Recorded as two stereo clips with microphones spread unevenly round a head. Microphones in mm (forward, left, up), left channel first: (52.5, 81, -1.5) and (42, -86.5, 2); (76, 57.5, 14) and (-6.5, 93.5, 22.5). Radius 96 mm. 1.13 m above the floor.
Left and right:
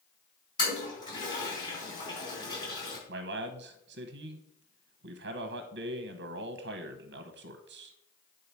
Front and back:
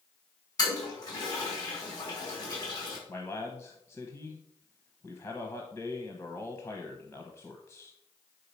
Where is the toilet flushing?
20° left, 5 m.